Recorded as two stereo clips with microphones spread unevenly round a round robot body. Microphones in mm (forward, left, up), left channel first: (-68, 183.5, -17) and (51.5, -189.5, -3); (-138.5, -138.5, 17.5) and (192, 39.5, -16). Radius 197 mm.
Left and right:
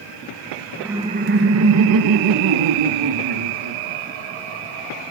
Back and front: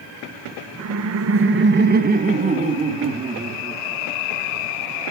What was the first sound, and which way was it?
Laughter, 20° left.